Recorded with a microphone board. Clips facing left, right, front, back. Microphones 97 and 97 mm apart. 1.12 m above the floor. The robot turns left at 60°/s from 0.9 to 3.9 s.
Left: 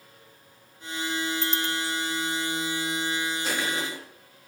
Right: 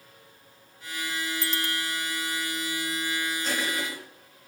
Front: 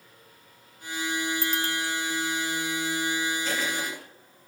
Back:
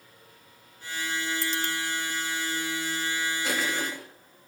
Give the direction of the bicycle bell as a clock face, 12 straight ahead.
1 o'clock.